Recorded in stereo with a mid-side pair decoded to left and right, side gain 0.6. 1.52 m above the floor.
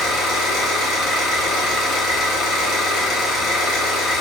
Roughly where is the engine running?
Ahead left.